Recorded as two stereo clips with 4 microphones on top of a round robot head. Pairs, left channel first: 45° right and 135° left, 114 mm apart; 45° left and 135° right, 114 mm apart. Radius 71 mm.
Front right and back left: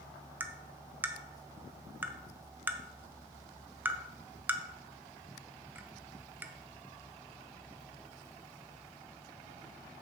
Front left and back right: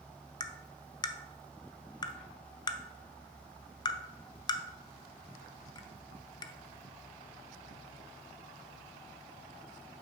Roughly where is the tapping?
Left.